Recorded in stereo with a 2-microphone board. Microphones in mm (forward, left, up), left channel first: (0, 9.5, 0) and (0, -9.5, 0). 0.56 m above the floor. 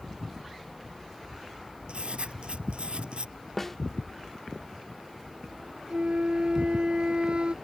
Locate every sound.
1.9 s writing: 65° right (ahead or behind)
3.6 s a snare drum: 15° left (ahead or behind)
5.9 s a flute: 60° right (ahead or behind)